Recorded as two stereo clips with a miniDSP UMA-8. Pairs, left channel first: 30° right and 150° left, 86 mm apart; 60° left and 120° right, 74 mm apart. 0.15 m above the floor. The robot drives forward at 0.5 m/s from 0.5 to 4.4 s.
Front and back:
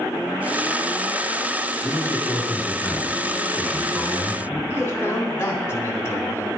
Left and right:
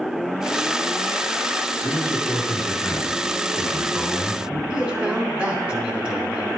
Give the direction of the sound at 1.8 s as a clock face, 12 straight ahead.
11 o'clock.